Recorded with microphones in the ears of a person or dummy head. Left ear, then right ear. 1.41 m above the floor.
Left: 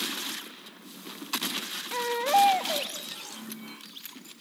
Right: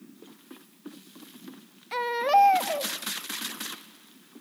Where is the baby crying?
20° right (ahead or behind), 1.1 m.